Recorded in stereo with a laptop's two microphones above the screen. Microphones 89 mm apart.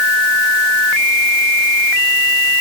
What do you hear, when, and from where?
Only background noise.